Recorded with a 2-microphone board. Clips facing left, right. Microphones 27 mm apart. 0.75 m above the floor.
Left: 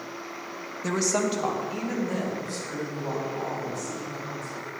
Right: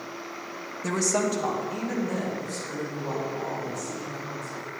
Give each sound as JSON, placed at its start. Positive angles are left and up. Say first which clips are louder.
{"t": 0.8, "sound": "a woman speaking", "louder": "even", "side_deg": 15, "distance_m": 1.0}